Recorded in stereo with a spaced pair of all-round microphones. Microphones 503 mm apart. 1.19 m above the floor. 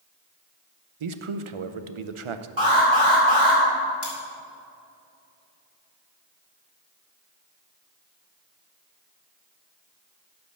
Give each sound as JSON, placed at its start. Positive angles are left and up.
{"t": 1.0, "sound": "a man speaking", "side_deg": -75, "distance_m": 0.6}
{"t": 2.6, "sound": "an alarm", "side_deg": -65, "distance_m": 3.0}
{"t": 4.0, "sound": "cutlery clinking", "side_deg": 50, "distance_m": 2.5}